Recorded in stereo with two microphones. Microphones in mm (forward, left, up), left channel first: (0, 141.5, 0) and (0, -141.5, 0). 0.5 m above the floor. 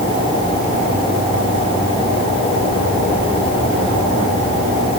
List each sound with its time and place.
Only background noise.